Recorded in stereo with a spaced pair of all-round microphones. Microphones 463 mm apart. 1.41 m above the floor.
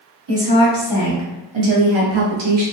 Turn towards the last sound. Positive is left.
turn(degrees=-55)  # may be behind; listen again after turning